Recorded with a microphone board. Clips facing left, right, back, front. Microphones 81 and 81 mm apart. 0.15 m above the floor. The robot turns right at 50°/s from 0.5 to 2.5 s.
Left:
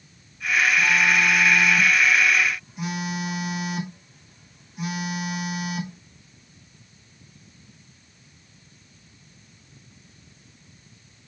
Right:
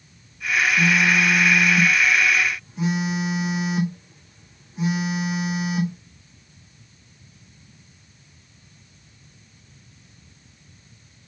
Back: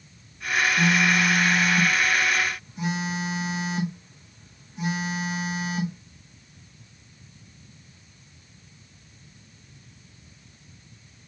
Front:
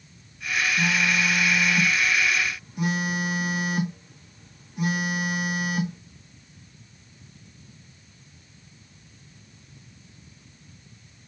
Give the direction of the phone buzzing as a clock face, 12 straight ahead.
4 o'clock.